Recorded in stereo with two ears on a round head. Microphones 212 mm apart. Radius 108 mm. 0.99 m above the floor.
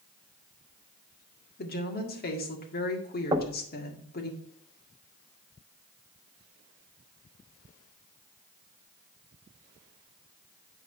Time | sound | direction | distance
1.6 | a woman speaking | 40° left (ahead or behind) | 1.9 m
3.3 | knocking | 15° right (ahead or behind) | 0.7 m